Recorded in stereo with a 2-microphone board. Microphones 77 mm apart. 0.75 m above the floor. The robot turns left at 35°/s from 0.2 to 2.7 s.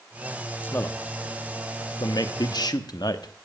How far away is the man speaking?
About 1.1 m.